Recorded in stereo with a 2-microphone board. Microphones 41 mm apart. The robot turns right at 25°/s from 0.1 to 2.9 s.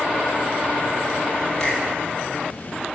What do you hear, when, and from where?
1.6 s a finger snap: 15° left (ahead or behind), 4 m